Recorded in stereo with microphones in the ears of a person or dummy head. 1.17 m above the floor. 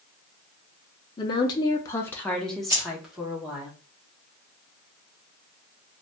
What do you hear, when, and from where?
1.2 s a woman speaking: 25° left (ahead or behind), 0.5 m; by 3.7 s 5° right (ahead or behind), 1.2 m
2.7 s keys jangling: 15° right (ahead or behind), 1.6 m